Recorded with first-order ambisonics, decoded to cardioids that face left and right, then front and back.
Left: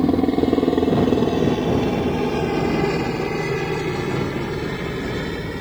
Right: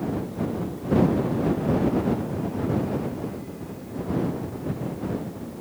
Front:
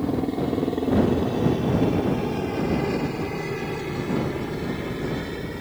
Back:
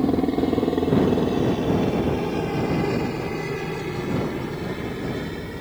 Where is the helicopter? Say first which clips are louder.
Left 11 dB, back 4 dB; 105° left; by 5.6 s 90° left.